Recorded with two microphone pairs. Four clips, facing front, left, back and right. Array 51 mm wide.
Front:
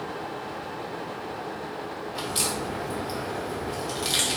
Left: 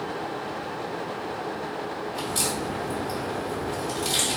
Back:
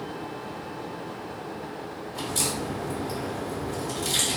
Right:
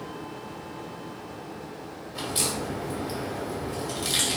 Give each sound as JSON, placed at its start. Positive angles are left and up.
{"t": 2.1, "sound": "a crack", "azimuth_deg": -15, "distance_m": 1.7}